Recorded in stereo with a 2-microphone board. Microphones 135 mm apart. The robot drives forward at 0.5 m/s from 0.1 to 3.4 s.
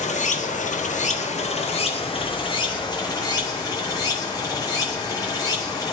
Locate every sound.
0.0 s running water: 60° left (ahead or behind), 0.9 m; by 6.0 s 30° left (ahead or behind), 1.6 m